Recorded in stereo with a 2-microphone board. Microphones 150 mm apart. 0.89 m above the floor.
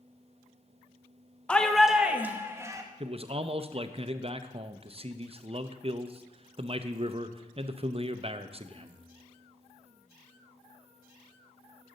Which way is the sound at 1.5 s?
10° left (ahead or behind).